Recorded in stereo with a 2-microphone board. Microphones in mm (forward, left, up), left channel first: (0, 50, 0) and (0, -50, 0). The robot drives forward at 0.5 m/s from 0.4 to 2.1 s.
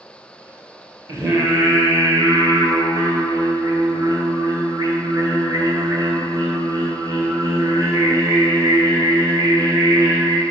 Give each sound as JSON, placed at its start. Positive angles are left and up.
{"t": 1.1, "sound": "singing", "side_deg": -30, "distance_m": 2.5}